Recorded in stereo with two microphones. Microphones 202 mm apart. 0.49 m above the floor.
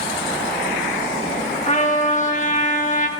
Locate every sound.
1.7 s a trumpet: 35° left (ahead or behind), 0.8 m